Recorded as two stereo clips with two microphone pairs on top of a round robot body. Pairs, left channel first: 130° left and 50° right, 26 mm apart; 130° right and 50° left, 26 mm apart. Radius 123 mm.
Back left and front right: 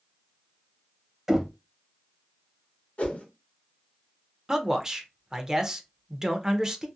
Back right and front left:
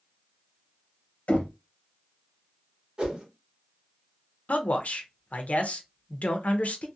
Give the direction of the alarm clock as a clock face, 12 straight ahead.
No alarm clock in this recording.